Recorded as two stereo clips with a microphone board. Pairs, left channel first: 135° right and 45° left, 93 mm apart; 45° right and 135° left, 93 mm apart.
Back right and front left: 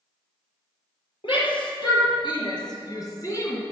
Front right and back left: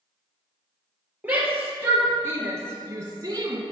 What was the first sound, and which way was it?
A shout, 150° right.